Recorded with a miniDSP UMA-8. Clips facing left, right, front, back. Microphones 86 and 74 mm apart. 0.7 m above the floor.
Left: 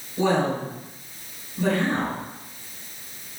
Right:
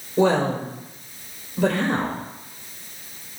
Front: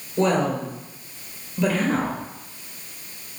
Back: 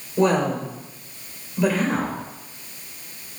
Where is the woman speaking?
100° right, 2.5 m.